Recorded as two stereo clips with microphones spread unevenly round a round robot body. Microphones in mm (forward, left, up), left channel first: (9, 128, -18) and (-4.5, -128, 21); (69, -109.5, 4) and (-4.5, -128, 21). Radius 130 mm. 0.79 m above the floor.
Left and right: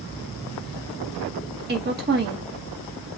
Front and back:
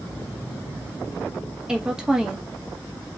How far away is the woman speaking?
About 1.0 m.